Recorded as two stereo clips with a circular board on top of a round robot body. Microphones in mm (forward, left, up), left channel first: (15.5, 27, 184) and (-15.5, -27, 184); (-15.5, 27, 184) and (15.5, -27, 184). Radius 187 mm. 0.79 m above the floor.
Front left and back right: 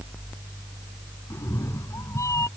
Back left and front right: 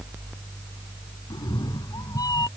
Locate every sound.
1.3 s a cat meowing: 105° left; by 2.5 s 100° left